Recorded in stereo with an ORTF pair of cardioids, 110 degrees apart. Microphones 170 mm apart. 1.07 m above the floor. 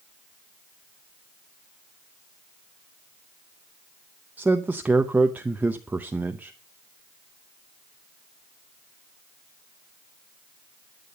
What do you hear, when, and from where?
4.4 s a man speaking: 10° right, 0.8 m